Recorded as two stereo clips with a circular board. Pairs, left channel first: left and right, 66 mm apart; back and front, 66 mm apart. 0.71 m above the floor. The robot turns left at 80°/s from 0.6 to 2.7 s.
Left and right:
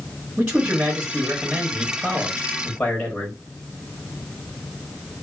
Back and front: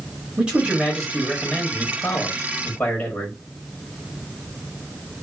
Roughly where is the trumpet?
No trumpet in this recording.